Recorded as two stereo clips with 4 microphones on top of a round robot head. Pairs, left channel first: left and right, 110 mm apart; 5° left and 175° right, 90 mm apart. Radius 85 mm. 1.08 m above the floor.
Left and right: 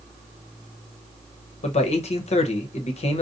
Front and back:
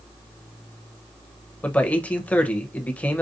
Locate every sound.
1.6 s a man speaking: 75° left, 1.0 m